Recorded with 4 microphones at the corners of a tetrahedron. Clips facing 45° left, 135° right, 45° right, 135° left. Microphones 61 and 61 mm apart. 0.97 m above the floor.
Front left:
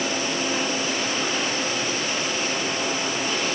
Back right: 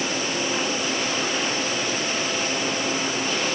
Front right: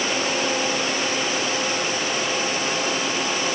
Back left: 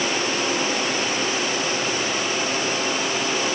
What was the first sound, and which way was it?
Only background noise.